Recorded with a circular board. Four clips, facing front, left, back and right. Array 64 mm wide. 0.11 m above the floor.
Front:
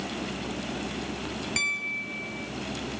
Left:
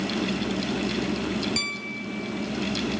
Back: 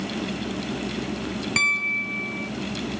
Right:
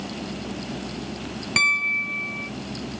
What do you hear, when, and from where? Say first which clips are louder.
1.6 s a piano: right 10 dB, back 9 dB; 120° right